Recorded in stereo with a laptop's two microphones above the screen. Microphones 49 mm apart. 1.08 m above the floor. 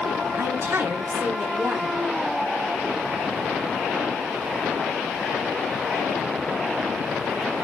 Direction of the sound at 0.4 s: 60° right (ahead or behind).